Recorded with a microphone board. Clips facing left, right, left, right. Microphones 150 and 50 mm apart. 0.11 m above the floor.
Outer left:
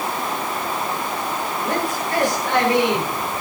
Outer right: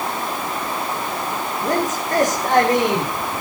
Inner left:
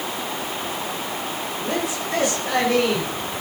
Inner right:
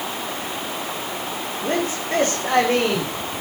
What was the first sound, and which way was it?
A man speaking, 40° right (ahead or behind).